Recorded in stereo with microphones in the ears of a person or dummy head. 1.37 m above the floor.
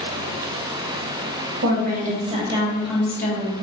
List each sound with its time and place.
1.6 s a woman speaking: 60° right (ahead or behind), 0.9 m; by 3.5 s 20° left (ahead or behind), 0.8 m